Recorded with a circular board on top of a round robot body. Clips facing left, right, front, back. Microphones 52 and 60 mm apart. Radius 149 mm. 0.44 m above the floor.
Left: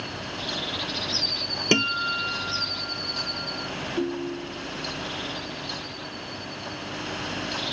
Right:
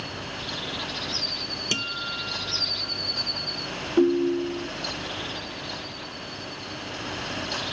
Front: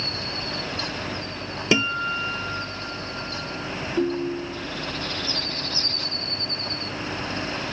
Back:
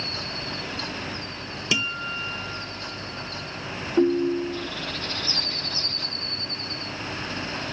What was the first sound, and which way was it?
A guitar, 50° left.